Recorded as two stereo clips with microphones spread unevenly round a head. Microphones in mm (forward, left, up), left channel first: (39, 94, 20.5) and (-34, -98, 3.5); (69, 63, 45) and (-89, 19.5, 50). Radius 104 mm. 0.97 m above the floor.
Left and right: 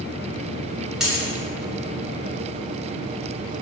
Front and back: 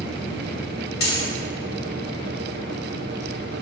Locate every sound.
1.0 s a dropped coin: 20° right, 2.5 m